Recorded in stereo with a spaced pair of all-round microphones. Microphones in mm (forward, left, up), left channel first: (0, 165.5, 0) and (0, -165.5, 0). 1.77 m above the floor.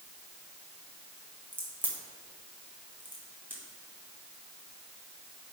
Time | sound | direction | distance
1.5 | a crack | 5° right (ahead or behind) | 1.8 m